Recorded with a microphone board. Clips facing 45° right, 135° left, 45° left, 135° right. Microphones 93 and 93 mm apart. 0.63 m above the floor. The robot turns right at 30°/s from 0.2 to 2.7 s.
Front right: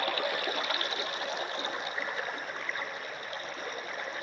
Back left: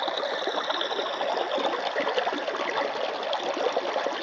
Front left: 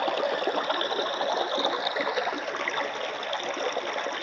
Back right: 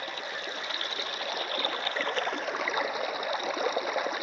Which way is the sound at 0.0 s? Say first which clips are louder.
Back left 4 dB, front left 11 dB; 70° left.